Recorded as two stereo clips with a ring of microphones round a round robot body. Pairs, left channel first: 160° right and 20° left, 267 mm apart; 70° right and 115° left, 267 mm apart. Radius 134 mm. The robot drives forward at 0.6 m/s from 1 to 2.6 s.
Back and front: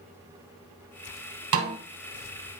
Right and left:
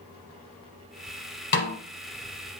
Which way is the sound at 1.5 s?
15° right.